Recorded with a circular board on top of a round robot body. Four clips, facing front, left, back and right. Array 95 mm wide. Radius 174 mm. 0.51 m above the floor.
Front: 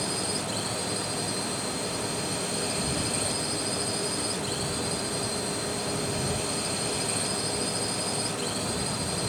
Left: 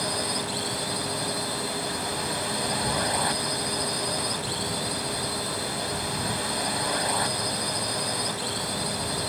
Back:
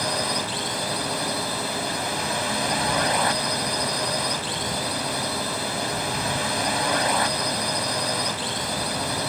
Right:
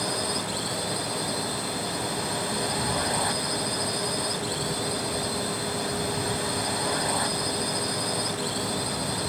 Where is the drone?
175° left.